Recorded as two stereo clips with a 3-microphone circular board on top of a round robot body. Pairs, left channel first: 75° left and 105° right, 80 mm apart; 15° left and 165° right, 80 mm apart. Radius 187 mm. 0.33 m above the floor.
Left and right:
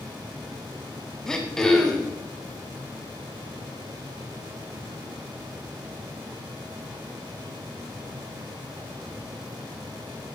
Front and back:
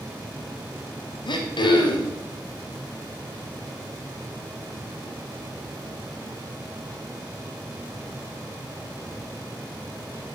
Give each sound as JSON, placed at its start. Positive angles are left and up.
{"t": 1.3, "sound": "throat clearing", "azimuth_deg": -10, "distance_m": 1.1}